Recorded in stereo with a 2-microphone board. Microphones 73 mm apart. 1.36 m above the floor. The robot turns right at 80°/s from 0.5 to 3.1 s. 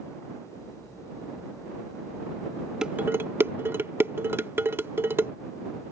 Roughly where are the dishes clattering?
Centre.